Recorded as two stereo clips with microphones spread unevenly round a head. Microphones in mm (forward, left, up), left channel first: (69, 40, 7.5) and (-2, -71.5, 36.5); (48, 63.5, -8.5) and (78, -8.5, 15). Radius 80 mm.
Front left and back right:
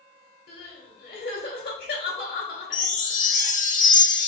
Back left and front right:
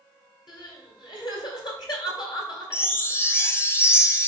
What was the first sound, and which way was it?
Crying, 85° left.